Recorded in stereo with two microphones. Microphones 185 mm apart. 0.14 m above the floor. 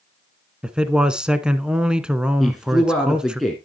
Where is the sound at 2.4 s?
Centre (ahead or behind), 2.0 m.